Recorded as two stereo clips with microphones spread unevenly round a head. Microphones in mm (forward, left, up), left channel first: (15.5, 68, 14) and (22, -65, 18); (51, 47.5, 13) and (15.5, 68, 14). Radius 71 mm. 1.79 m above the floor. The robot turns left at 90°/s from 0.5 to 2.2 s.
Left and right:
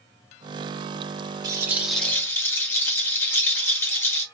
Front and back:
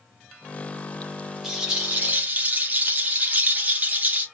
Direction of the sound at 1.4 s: 130° right.